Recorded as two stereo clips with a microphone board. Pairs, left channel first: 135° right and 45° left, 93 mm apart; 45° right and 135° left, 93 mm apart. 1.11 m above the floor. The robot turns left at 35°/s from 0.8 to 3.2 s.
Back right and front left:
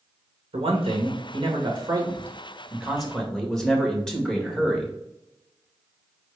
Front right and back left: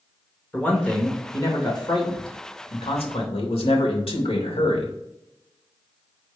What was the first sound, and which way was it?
A man speaking, 30° left.